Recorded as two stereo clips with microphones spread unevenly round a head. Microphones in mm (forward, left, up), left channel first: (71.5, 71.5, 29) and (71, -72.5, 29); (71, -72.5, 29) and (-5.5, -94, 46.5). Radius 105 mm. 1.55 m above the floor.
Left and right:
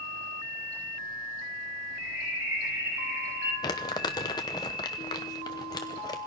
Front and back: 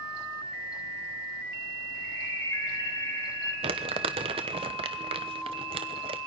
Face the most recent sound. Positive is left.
turn(degrees=160)